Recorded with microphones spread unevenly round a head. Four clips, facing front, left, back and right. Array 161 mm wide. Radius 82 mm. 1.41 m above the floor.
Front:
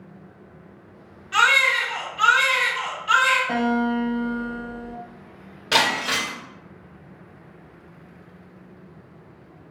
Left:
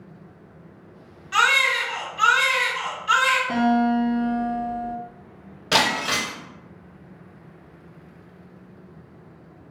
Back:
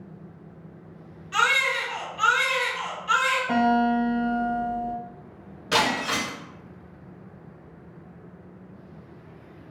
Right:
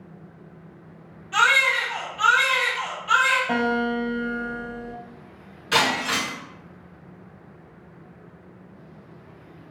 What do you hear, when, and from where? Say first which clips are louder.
1.3 s a baby crying: even, front 4 dB; 65° left, 1.7 m
3.5 s a guitar: left 3 dB, back 1 dB; 105° right, 1.2 m
5.7 s breaking glass: left 1 dB, front 1 dB; 60° left, 1.7 m